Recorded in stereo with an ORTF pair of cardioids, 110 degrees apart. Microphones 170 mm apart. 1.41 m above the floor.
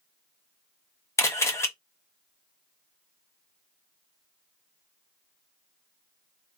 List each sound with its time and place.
1.2 s a camera shutter: 15° left, 0.9 m